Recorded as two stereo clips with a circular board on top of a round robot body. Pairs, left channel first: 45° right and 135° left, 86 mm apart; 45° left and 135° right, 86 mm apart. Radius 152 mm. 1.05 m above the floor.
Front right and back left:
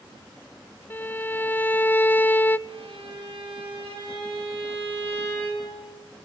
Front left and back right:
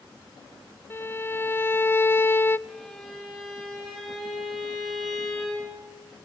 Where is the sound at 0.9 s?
5° left, 0.8 m.